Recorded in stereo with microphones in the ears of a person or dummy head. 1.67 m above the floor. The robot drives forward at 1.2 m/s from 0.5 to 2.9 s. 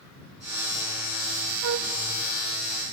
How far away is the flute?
About 0.5 m.